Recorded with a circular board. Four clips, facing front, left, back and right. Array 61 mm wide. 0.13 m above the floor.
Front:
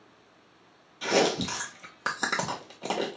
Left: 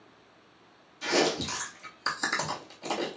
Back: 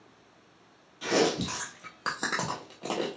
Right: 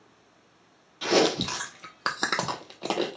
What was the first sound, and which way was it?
Chewing, 80° right.